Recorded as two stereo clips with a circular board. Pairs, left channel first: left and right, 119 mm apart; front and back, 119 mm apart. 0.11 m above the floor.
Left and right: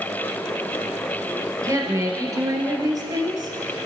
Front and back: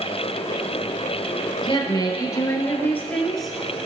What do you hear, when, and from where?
1.6 s a woman speaking: 35° right, 2.5 m; by 3.6 s 95° right, 1.8 m